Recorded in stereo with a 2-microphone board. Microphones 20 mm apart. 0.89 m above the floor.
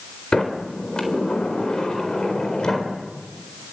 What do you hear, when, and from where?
0.3 s a sliding door: 45° left (ahead or behind), 4 m